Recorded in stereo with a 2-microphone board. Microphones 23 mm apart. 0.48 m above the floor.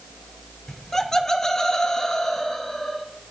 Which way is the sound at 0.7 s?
20° left (ahead or behind).